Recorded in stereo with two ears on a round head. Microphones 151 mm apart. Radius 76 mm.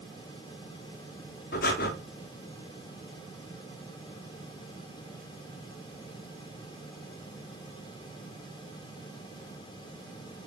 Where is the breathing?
60° left (ahead or behind), 0.6 m.